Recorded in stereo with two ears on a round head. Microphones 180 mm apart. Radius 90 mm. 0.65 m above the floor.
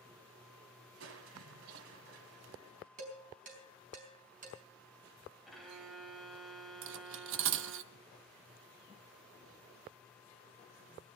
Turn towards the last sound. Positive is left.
turn(degrees=-70)  # may be behind; listen again after turning